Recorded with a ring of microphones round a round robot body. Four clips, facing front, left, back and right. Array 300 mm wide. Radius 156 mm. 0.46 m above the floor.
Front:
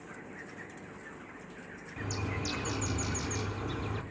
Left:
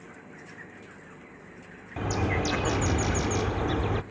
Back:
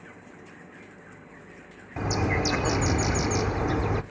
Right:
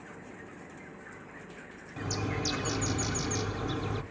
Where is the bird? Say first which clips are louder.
Left 6 dB, back 11 dB; 145° left, 0.7 m.